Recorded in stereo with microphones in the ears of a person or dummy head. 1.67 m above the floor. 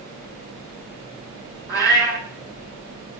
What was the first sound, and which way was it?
A cat meowing, 5° right (ahead or behind).